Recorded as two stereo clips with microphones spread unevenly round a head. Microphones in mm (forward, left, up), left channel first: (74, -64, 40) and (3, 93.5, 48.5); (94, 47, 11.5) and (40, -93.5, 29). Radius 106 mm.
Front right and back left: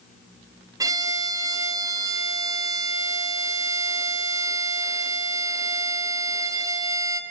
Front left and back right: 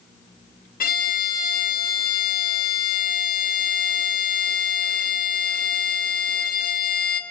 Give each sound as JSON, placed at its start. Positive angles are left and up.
{"t": 0.8, "sound": "a violin", "azimuth_deg": 40, "distance_m": 1.1}